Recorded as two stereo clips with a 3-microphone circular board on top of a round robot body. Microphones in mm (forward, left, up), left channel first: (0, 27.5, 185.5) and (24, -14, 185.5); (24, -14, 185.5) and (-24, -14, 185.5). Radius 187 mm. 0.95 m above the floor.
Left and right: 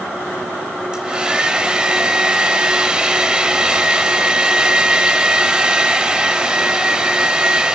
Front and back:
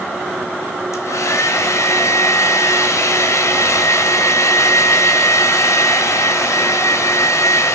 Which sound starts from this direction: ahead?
A hair dryer, at 0.9 s.